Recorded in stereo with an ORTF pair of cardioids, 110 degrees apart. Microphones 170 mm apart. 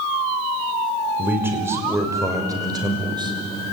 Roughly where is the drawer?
I don't hear a drawer.